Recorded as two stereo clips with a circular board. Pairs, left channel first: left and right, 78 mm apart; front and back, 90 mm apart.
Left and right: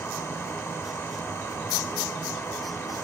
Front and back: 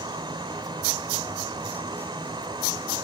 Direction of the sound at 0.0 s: 145° left.